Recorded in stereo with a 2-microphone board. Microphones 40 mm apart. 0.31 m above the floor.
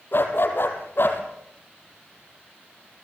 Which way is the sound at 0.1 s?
60° left (ahead or behind).